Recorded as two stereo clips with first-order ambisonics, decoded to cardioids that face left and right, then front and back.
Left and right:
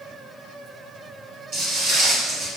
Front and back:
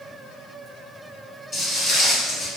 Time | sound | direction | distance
1.5 | footsteps | 60° right | 1.8 m